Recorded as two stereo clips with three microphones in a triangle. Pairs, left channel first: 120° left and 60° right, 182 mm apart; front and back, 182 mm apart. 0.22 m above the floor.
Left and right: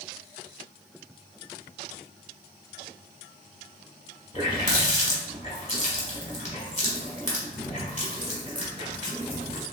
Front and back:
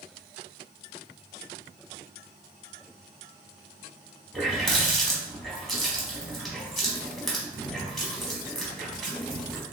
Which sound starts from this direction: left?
A running tap, at 4.3 s.